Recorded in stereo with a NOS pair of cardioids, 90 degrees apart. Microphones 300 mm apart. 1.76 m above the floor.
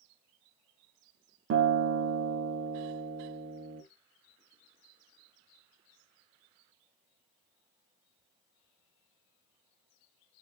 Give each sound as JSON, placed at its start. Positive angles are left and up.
{"t": 1.5, "sound": "a guitar", "azimuth_deg": -50, "distance_m": 1.0}